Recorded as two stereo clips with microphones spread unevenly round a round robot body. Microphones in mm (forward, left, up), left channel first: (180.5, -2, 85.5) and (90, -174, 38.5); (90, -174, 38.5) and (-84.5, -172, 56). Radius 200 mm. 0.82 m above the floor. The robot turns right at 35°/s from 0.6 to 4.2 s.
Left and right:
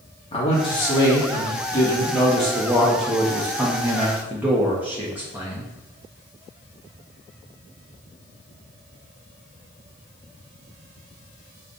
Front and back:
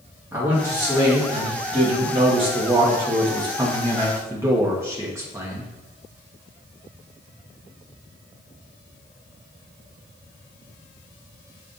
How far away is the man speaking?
About 0.9 m.